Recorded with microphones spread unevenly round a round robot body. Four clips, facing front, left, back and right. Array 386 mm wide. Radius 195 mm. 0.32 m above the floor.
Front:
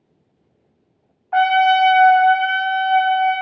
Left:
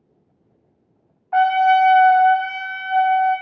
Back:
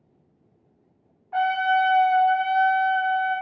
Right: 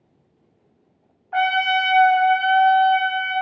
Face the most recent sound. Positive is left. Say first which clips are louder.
# left 6 dB, front 7 dB
turn(degrees=45)